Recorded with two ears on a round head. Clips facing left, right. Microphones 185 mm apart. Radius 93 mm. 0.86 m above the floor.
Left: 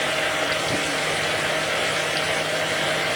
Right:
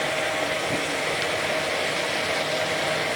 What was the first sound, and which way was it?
Only background noise.